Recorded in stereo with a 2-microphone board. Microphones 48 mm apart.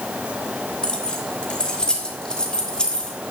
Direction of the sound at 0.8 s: 20° left (ahead or behind).